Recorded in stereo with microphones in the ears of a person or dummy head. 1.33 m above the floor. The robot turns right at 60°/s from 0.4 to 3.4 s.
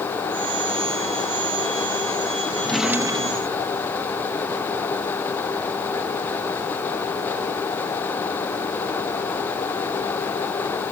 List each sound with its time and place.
2.6 s a drawer: 165° left; by 3.7 s 140° right